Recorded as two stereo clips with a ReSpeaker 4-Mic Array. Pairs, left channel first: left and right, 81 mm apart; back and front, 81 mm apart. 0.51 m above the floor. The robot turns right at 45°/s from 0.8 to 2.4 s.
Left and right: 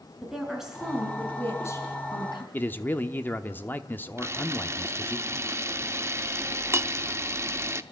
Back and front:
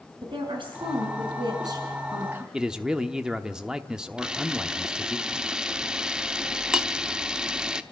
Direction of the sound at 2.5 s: 70° left.